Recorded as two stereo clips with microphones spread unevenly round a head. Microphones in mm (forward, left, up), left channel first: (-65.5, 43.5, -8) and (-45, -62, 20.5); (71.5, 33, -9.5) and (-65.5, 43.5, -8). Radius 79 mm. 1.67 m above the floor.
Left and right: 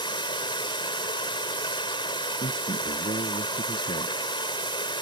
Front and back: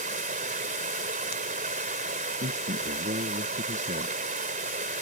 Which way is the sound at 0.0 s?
150° left.